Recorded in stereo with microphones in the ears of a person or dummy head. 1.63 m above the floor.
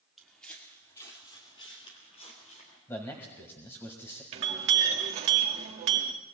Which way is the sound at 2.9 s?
15° left (ahead or behind).